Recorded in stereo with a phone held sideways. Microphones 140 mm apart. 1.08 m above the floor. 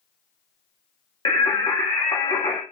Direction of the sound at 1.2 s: 35° left (ahead or behind).